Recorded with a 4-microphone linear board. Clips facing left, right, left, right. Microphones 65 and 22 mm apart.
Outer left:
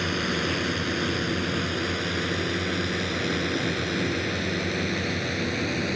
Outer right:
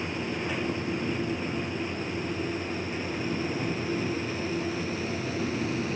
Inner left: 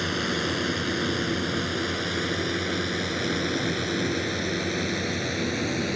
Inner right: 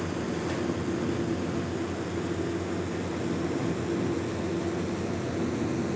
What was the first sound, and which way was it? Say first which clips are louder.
A drone: outer left 5 dB, inner left 5 dB; 75° left (ahead or behind).